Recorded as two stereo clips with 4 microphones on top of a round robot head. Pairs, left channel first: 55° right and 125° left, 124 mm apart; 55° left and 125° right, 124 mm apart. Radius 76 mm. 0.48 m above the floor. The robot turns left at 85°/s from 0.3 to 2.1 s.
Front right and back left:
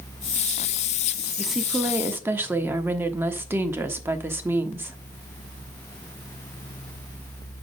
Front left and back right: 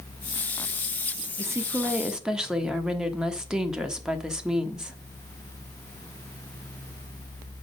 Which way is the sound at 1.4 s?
140° right.